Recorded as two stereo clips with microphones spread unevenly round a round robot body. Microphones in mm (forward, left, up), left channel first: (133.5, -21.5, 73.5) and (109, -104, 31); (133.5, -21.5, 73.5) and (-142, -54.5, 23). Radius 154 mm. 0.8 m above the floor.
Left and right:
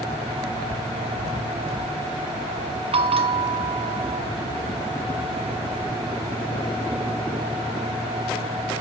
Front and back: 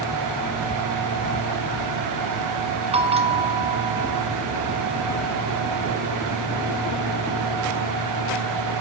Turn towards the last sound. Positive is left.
turn(degrees=-105)